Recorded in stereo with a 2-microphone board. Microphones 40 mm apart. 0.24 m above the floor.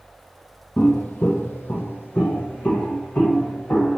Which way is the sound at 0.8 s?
50° left (ahead or behind).